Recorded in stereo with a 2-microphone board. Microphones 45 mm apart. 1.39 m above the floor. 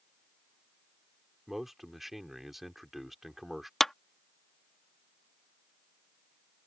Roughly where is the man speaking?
Centre.